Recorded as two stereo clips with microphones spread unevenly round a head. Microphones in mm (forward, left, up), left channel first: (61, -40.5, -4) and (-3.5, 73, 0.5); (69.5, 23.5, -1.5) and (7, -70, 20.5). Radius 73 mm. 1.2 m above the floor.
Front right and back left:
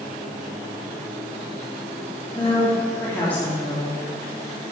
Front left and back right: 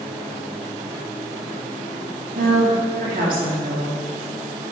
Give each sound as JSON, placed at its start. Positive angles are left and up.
{"t": 2.4, "sound": "a woman speaking", "azimuth_deg": -140, "distance_m": 3.0}